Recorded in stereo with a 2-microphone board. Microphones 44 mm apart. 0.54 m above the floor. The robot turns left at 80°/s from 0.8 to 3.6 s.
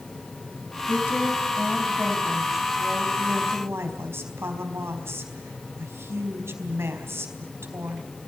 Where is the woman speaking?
125° left, 4 m; by 8.0 s 90° right, 4 m.